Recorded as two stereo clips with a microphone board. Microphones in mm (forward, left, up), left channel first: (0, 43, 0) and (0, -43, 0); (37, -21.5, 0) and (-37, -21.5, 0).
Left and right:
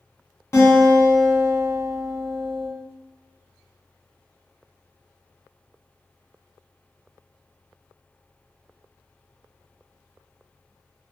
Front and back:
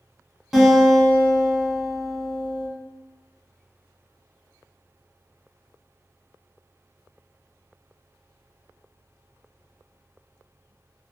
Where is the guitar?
95° left, 1.1 m.